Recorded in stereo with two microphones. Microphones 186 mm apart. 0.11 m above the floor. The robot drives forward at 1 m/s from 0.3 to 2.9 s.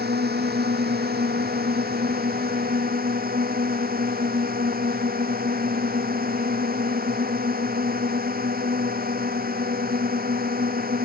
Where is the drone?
60° right (ahead or behind); by 11.1 s 55° right (ahead or behind).